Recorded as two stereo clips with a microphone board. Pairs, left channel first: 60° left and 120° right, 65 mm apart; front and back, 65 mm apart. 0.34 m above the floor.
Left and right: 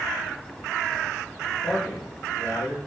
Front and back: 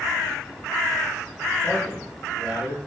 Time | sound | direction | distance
1.6 | a man speaking | 130° left | 5.5 m